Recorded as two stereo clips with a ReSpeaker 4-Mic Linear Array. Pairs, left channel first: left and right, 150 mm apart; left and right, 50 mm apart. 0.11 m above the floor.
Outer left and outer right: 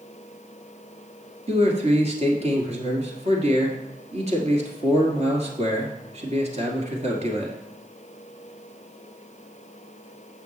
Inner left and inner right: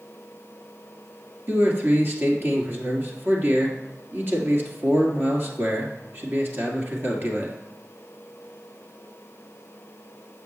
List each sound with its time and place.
1.5 s a man speaking: 45° right (ahead or behind), 1.8 m